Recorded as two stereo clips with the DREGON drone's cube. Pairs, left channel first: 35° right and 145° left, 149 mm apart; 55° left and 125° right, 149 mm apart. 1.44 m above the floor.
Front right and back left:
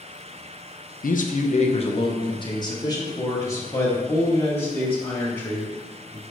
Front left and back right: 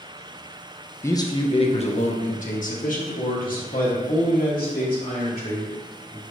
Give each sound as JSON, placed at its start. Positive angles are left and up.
{"t": 1.0, "sound": "a man speaking", "azimuth_deg": -15, "distance_m": 0.7}